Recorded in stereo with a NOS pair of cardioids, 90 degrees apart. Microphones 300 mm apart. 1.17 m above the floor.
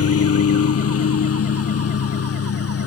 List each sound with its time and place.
0.0 s a lawn mower: 50° left